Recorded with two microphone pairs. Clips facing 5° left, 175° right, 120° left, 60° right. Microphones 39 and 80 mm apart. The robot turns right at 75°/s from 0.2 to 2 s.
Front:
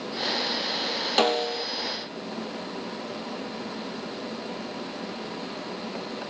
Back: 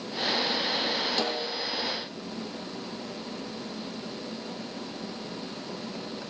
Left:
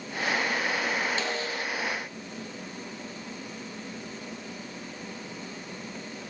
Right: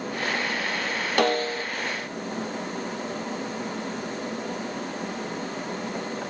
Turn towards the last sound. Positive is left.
turn(degrees=30)